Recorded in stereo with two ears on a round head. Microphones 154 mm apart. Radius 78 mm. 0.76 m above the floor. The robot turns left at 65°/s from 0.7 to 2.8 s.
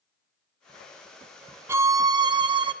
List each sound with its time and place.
1.7 s a violin: 15° right (ahead or behind), 0.5 m; by 2.7 s 25° right (ahead or behind), 0.5 m